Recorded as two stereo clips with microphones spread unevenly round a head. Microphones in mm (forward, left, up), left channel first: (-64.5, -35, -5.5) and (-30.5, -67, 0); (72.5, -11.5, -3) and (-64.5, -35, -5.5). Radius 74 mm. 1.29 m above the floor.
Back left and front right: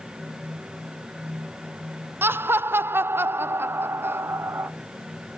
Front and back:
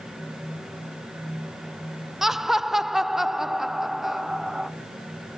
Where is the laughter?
85° right, 0.6 m.